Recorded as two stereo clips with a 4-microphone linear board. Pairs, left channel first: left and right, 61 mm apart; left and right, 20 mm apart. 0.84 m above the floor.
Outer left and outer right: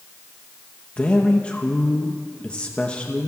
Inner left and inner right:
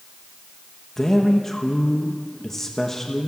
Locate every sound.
1.0 s a man speaking: 20° left (ahead or behind), 0.9 m